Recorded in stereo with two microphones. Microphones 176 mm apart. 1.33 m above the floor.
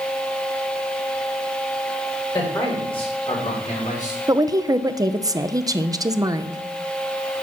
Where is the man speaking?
25° left (ahead or behind), 5 m; by 4.2 s 50° left (ahead or behind), 4.5 m.